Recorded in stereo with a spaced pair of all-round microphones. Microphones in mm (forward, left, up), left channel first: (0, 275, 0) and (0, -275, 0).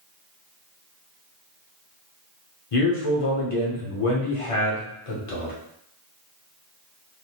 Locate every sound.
2.7 s a man speaking: 70° left (ahead or behind), 0.9 m